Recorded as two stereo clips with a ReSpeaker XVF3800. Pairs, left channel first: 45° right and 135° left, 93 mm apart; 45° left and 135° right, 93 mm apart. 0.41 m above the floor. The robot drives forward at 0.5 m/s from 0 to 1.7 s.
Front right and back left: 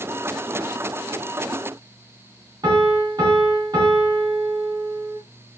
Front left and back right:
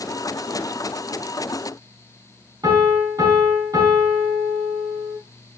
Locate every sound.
2.6 s a piano: straight behind, 3.5 m